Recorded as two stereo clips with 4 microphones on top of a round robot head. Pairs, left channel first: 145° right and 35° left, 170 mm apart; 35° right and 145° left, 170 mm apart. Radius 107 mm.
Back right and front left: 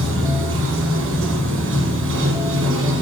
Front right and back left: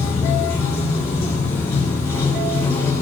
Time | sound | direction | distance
0.0 | running water | 40° left | 1.4 m